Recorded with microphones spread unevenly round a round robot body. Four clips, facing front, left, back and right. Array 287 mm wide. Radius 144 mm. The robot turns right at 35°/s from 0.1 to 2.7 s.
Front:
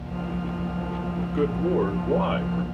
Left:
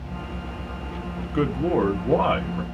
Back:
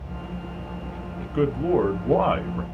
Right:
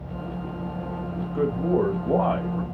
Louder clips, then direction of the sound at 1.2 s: Left 1 dB, back 1 dB; 85° left.